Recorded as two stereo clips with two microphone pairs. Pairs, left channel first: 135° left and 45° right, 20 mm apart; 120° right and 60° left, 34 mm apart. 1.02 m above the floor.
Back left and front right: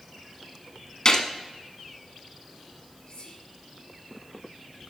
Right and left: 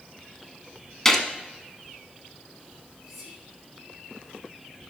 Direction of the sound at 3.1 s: 145° left.